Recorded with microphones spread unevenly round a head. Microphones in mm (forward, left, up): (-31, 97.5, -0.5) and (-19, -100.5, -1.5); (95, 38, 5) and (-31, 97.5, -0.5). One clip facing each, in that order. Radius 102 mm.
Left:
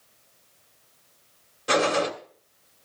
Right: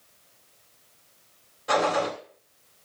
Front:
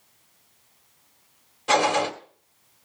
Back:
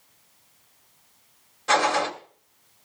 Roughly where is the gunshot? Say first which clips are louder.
Left 1 dB, front 1 dB; ahead left.